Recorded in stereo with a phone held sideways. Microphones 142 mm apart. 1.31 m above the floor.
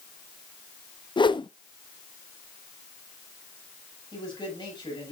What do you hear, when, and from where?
1.2 s a whoosh: 35° left (ahead or behind), 0.6 m
4.1 s a man speaking: 35° left (ahead or behind), 6 m